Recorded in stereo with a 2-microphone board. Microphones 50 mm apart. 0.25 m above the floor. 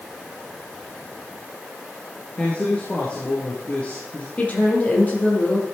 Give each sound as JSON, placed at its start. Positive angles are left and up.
{"t": 2.4, "sound": "a man speaking", "side_deg": 30, "distance_m": 4.5}
{"t": 4.4, "sound": "a woman speaking", "side_deg": 35, "distance_m": 6.0}